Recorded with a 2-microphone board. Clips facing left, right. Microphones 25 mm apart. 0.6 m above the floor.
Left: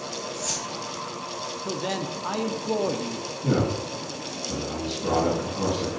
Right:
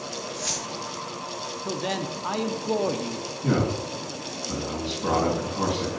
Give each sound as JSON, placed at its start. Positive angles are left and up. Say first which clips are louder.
{"t": 0.3, "sound": "keys jangling", "louder": "right 2 dB", "side_deg": -70, "distance_m": 4.5}
{"t": 1.6, "sound": "a man speaking", "louder": "right 1 dB", "side_deg": -10, "distance_m": 0.6}
{"t": 3.4, "sound": "a man speaking", "louder": "even", "side_deg": -70, "distance_m": 4.5}